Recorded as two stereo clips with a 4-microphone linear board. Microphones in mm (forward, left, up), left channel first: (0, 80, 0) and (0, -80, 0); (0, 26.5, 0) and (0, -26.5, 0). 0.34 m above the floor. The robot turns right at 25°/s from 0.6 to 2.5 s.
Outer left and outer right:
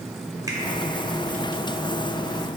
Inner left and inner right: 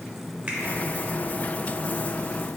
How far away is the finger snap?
About 1.4 m.